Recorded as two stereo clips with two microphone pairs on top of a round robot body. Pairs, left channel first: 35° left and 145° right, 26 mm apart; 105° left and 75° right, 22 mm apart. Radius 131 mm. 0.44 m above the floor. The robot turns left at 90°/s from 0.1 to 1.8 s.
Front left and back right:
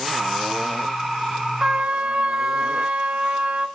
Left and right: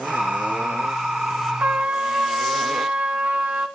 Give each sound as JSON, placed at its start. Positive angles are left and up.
{"t": 1.6, "sound": "a trumpet", "azimuth_deg": -85, "distance_m": 1.2}